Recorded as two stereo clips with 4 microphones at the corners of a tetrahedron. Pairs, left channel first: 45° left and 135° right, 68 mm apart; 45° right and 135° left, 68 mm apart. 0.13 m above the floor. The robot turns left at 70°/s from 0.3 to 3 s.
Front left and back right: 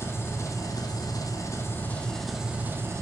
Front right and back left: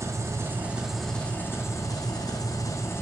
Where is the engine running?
90° left, 1.5 m; by 3.0 s 95° right, 1.5 m.